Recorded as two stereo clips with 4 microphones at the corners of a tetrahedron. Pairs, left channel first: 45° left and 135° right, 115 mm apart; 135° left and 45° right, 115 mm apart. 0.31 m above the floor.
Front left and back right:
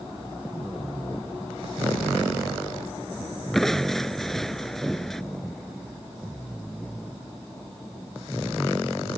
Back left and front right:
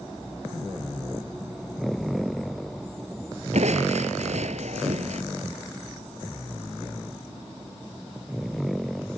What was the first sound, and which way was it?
Crushing, 40° right.